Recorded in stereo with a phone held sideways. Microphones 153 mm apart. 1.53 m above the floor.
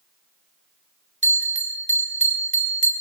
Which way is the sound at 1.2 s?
55° right (ahead or behind).